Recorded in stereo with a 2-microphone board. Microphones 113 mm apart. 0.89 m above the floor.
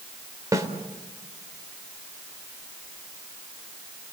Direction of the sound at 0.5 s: 30° right (ahead or behind).